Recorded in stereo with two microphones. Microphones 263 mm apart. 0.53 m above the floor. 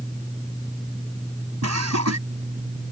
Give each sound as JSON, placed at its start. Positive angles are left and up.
{"t": 1.6, "sound": "laughter", "side_deg": -80}